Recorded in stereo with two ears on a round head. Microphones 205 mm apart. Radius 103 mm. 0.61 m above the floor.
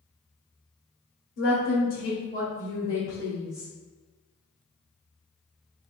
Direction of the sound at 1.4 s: 55° left (ahead or behind).